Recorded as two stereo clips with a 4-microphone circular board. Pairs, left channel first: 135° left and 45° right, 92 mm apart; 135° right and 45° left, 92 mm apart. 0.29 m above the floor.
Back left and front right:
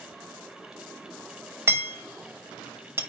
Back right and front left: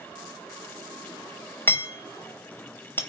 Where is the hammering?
85° right, 0.9 m.